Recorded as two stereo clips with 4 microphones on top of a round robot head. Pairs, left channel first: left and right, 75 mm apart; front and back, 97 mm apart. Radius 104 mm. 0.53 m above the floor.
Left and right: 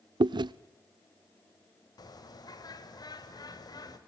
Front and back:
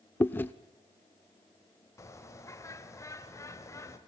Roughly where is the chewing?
Right.